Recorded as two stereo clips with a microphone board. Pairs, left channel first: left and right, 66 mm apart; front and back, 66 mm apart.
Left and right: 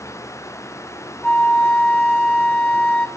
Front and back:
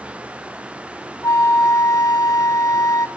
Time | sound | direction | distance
1.2 | a flute | 15° left | 1.8 m